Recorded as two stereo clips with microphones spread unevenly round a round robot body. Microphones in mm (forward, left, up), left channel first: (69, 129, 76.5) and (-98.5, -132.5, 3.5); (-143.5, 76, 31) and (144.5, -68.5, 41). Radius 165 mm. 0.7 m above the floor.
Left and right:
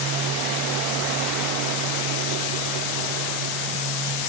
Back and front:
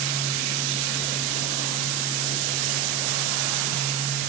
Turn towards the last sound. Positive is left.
No sound to turn to.